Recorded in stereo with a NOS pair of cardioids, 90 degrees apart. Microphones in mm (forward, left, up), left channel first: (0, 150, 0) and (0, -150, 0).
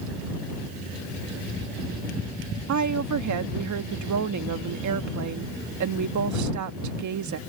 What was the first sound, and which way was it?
A woman speaking, 70° right.